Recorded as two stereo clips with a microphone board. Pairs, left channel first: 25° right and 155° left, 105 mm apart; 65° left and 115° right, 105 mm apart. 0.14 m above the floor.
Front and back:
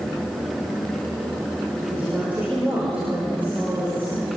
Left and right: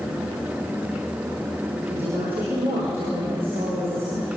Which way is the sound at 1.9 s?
125° right.